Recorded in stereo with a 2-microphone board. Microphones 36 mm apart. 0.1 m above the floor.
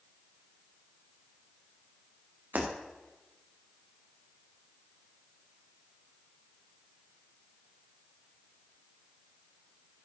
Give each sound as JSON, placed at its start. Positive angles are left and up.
{"t": 2.5, "sound": "breaking glass", "side_deg": -60, "distance_m": 3.0}